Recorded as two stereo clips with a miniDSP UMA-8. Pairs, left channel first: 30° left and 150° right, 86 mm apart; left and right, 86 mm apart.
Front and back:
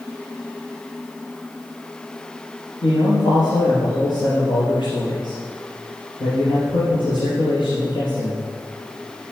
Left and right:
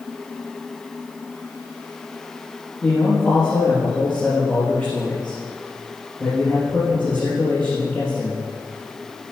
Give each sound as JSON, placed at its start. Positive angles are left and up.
{"t": 2.8, "sound": "a man speaking", "azimuth_deg": 15, "distance_m": 4.5}